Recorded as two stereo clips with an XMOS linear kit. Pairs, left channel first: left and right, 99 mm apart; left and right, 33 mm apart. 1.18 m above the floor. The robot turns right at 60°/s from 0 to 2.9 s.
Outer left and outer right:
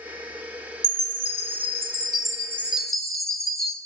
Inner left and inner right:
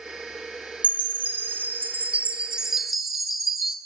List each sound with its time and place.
0.8 s a chime: 125° right, 3.5 m; by 3.8 s straight ahead, 3.5 m